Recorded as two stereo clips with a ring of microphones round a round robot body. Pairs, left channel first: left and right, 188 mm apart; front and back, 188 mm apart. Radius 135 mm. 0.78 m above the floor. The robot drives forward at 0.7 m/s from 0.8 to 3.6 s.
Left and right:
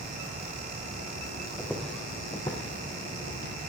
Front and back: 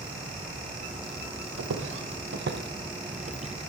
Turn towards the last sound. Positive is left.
turn(degrees=115)